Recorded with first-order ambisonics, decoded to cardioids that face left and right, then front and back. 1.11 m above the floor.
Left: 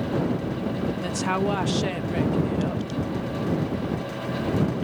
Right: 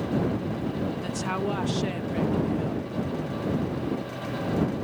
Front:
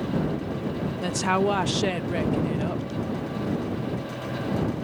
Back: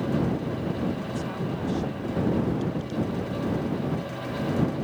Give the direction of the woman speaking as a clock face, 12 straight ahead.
12 o'clock.